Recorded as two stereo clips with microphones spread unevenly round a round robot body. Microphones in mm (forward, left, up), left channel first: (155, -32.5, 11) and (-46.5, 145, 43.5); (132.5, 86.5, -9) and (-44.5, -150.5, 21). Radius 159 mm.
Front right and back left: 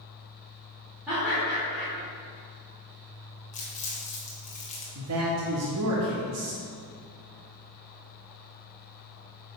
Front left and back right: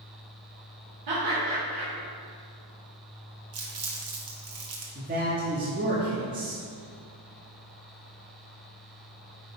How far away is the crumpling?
About 1.5 m.